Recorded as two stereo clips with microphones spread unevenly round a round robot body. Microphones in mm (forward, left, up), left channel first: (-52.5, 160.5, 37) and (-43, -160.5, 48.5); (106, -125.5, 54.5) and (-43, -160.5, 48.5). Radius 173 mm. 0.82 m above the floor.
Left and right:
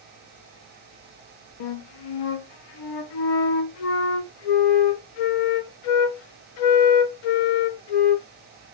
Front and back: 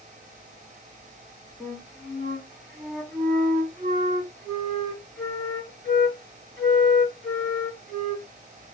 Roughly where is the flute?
Left.